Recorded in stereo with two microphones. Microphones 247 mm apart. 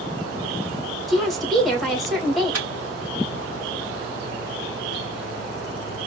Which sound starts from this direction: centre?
A woman speaking, at 1.1 s.